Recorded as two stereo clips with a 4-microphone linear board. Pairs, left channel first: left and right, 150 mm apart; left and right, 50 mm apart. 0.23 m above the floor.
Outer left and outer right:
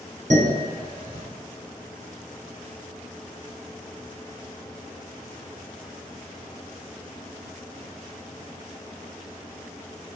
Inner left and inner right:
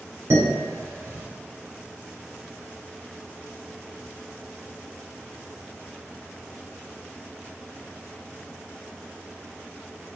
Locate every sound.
0.3 s dishes clattering: 60° right (ahead or behind), 1.9 m